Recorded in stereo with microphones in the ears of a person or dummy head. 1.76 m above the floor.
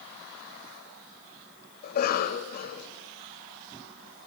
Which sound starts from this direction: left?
A cough, at 1.8 s.